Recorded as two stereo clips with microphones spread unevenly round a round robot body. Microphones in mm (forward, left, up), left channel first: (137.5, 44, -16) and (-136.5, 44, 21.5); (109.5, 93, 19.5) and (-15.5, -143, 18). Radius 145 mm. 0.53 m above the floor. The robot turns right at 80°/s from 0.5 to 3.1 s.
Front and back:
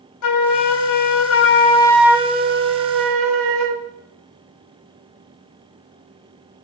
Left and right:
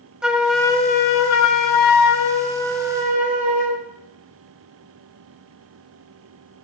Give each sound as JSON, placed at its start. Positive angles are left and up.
{"t": 0.2, "sound": "a flute", "azimuth_deg": -30, "distance_m": 1.5}